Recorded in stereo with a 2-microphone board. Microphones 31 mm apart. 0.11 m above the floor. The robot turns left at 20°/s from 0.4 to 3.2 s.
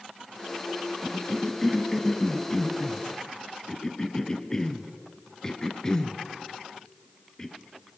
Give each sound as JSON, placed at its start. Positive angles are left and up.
{"t": 1.0, "sound": "a cough", "side_deg": 0, "distance_m": 1.8}